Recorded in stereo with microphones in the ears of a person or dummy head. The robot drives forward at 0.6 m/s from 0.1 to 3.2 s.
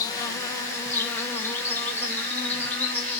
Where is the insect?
15° left (ahead or behind), 1.3 m; by 3.2 s 5° left (ahead or behind), 3 m.